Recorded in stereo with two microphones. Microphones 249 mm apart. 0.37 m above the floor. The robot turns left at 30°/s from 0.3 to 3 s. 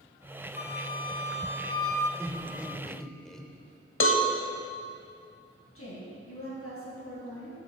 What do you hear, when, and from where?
0.6 s a flute: 55° left, 0.7 m; by 2.1 s 10° left, 0.7 m
2.2 s laughter: 10° right (ahead or behind), 0.9 m; by 3.5 s centre (ahead or behind), 0.9 m
4.0 s a cowbell: 60° left (ahead or behind), 0.7 m
5.8 s a woman speaking: 65° left (ahead or behind), 3 m